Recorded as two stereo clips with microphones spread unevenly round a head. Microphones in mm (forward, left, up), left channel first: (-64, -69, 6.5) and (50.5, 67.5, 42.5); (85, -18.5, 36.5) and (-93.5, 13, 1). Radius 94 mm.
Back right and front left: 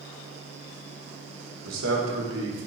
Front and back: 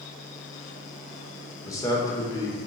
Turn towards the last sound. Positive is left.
turn(degrees=60)